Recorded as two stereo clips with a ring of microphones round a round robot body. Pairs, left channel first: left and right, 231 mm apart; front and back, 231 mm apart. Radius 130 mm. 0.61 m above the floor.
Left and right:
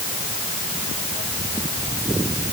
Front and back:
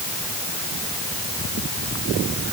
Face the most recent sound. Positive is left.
No sound to turn to.